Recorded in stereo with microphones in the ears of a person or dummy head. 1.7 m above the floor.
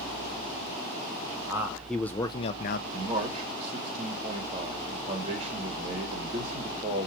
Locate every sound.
1.5 s a man speaking: 15° right (ahead or behind), 0.7 m; by 2.8 s 60° left (ahead or behind), 0.5 m
2.9 s a man speaking: 30° right (ahead or behind), 1.7 m